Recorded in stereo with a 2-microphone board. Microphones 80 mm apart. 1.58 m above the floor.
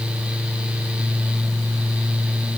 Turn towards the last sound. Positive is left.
No sound to turn to.